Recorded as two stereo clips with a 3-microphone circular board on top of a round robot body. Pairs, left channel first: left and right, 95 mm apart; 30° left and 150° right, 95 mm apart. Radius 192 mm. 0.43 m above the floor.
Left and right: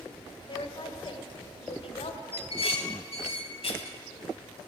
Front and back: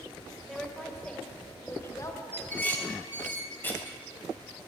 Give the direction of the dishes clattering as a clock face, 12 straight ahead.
9 o'clock.